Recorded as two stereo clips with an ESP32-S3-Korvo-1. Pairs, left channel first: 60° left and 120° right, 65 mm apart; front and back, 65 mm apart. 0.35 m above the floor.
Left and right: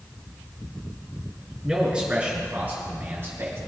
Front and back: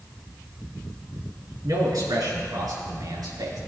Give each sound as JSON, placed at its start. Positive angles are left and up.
{"t": 1.6, "sound": "a man speaking", "azimuth_deg": 160, "distance_m": 4.0}